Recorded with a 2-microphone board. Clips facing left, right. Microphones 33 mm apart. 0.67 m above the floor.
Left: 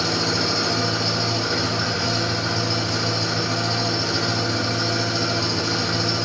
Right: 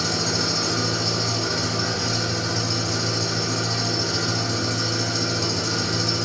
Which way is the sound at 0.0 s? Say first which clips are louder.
Left 2 dB; 30° left (ahead or behind).